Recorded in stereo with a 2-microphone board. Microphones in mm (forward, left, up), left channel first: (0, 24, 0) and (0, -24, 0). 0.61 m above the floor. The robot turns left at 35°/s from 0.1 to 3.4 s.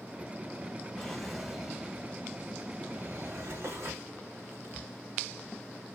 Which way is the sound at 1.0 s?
15° left (ahead or behind).